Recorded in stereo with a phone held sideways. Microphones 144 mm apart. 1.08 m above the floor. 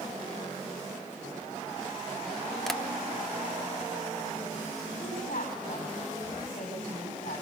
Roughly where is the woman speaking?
Left.